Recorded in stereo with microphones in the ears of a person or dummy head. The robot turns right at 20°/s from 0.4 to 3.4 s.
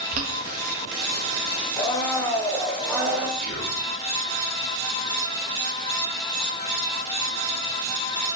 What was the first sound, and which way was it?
Boiling, 50° right (ahead or behind).